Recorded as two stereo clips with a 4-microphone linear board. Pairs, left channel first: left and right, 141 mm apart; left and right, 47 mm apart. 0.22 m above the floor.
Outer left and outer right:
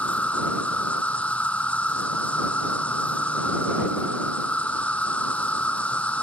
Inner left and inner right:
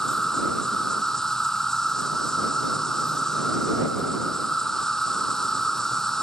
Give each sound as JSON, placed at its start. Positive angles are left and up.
{"t": 0.0, "sound": "an insect", "side_deg": 10}